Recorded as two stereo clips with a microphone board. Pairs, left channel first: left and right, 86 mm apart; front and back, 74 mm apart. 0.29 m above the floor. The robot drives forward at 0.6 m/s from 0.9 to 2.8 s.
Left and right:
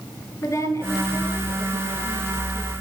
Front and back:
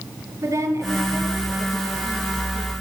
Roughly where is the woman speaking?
Behind left.